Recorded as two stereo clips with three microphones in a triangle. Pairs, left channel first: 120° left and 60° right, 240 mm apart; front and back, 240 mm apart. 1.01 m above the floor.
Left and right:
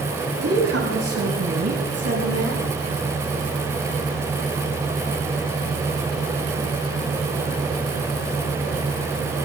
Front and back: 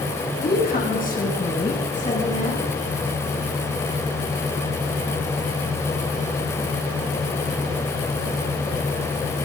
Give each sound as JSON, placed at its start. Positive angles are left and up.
{"t": 0.4, "sound": "a woman speaking", "azimuth_deg": -50, "distance_m": 6.5}